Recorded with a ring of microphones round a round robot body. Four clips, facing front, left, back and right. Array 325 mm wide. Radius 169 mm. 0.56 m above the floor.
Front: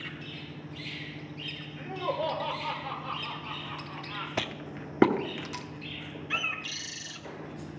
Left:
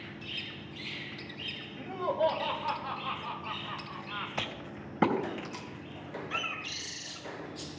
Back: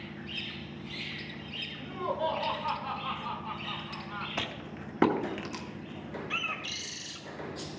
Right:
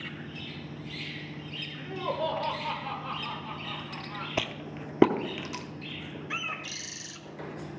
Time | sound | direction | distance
1.8 | laughter | 45° right | 2.5 m
4.4 | a rattle | 60° right | 0.9 m
6.3 | a bird | 75° right | 1.2 m